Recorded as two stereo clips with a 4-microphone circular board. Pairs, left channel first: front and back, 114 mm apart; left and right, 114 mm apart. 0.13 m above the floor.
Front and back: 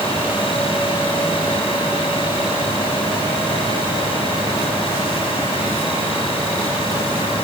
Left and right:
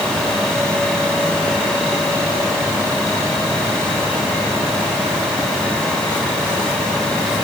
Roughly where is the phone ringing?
No phone ringing in this recording.